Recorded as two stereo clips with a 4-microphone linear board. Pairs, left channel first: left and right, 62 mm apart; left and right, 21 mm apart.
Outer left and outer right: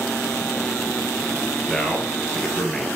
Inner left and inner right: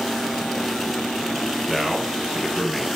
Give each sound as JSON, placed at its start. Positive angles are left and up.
{"t": 1.7, "sound": "a man speaking", "side_deg": 15, "distance_m": 1.6}